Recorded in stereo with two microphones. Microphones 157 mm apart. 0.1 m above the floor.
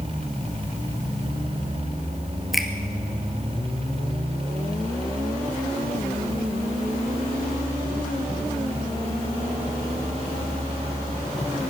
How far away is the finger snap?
About 2 m.